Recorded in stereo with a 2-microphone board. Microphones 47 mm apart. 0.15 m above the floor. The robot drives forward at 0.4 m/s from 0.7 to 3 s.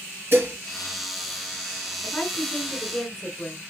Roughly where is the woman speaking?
Centre.